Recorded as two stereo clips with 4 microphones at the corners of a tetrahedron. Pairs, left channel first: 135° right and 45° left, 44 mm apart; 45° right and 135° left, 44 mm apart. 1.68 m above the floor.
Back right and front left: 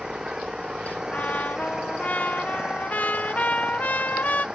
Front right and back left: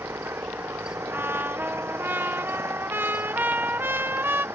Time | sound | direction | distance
0.0 | an engine running | 120° left | ?
1.1 | a trumpet | 175° left | ?